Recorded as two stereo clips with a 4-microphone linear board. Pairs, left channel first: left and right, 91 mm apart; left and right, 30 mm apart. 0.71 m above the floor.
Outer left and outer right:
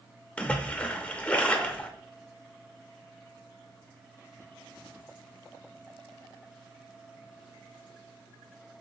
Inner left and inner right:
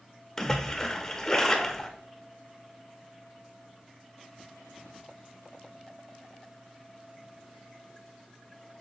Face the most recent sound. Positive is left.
turn(degrees=15)  # may be behind; listen again after turning